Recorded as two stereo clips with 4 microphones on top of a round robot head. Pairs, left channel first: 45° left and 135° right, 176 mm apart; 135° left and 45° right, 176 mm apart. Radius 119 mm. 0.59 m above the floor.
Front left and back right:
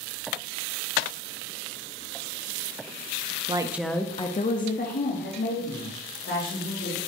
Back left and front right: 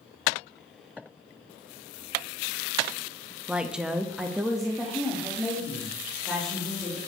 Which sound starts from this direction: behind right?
A woman speaking, at 3.5 s.